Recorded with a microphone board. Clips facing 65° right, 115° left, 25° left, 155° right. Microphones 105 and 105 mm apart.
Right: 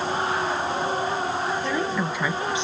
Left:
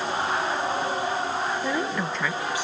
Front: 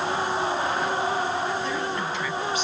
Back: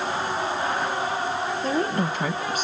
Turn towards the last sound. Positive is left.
turn(degrees=-130)